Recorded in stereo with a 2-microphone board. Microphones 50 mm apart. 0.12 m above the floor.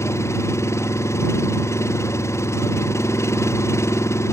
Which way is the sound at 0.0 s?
80° left.